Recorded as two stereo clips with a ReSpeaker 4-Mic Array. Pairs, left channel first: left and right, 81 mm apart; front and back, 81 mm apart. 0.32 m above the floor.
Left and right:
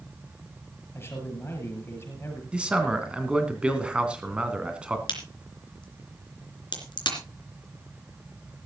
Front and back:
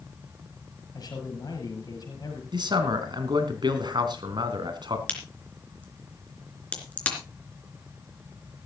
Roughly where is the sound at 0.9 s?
Ahead left.